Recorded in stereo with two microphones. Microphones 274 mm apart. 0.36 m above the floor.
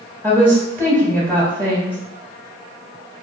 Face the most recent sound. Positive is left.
turn(degrees=10)  # may be behind; listen again after turning